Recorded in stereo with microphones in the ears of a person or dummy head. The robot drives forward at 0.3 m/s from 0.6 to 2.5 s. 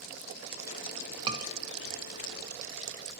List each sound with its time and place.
1.3 s a scream: 30° right (ahead or behind), 1.4 m